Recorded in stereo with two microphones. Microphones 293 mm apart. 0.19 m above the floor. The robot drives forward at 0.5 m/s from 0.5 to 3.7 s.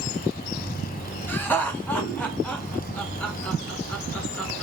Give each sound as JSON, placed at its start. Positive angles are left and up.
{"t": 1.3, "sound": "laughter", "side_deg": 5, "distance_m": 1.1}